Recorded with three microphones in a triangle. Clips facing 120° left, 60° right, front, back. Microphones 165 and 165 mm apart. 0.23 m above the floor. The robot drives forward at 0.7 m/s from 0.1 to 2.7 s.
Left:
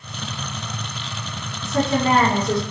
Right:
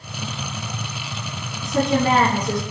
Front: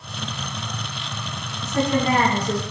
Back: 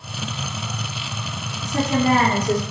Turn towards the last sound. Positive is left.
turn(degrees=-140)